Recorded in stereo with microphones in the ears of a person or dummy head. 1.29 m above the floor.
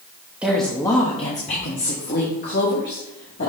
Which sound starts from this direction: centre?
A woman speaking, at 0.4 s.